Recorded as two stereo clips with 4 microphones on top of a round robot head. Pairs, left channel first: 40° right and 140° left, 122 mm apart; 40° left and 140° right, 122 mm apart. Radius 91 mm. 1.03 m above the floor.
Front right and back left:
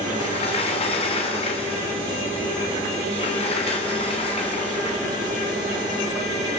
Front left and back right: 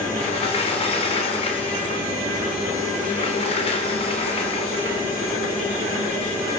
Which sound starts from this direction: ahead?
A sliding door, at 0.2 s.